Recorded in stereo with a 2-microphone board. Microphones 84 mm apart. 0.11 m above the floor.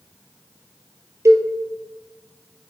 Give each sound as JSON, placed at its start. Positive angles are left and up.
{"t": 1.2, "sound": "a cowbell", "side_deg": -40, "distance_m": 1.6}